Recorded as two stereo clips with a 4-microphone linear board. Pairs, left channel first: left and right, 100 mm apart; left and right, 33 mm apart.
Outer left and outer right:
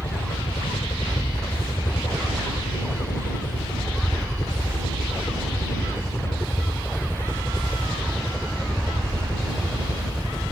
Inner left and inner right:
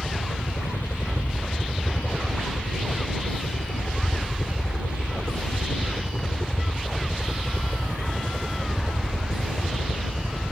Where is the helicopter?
70° left (ahead or behind); by 10.5 s centre (ahead or behind).